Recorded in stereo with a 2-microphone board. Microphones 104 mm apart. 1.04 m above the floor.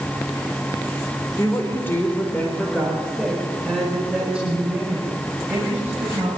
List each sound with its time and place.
1.4 s a woman speaking: 30° left (ahead or behind), 4 m; by 6.3 s 25° right (ahead or behind), 8 m